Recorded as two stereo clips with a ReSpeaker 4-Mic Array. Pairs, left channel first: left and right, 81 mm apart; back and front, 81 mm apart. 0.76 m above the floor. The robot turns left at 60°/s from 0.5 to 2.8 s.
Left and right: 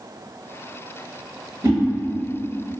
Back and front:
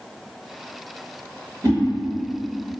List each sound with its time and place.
1.6 s a whoosh: 35° right, 1.3 m; by 1.8 s 45° right, 1.3 m